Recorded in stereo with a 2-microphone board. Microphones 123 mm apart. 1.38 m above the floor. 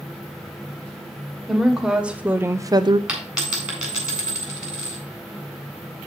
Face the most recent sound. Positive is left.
turn(degrees=-10)  # may be behind; listen again after turning